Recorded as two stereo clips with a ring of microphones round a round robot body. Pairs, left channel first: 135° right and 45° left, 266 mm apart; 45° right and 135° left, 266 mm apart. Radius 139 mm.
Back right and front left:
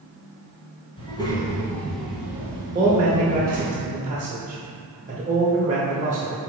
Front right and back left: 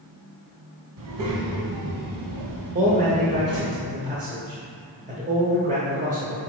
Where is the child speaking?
155° left, 2 m; by 3.8 s 95° left, 1.7 m.